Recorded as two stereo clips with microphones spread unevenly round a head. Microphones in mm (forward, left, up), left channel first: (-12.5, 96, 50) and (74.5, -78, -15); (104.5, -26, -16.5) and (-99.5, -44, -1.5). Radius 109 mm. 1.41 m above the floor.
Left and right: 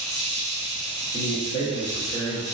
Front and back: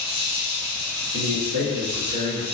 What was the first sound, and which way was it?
An insect, 175° right.